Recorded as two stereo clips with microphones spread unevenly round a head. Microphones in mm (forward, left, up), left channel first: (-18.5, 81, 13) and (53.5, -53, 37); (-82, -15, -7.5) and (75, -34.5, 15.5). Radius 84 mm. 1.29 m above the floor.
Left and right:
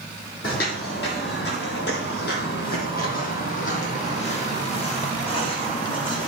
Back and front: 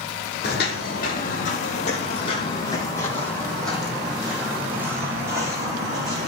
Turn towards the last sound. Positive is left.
turn(degrees=55)